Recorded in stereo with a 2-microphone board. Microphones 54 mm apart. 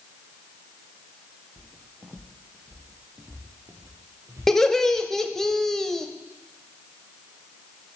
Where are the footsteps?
5° left (ahead or behind), 1.0 m; by 5.5 s 70° right (ahead or behind), 3.5 m.